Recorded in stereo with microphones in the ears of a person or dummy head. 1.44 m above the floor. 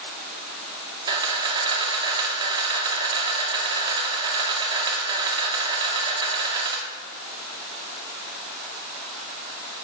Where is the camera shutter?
15° right (ahead or behind), 1.8 m.